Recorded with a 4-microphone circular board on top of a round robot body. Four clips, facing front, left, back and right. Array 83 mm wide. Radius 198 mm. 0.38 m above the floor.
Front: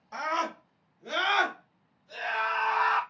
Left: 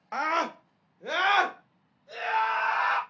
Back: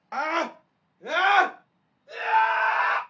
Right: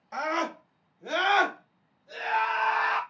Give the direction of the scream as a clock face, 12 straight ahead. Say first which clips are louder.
Left 2 dB, back 4 dB; 8 o'clock.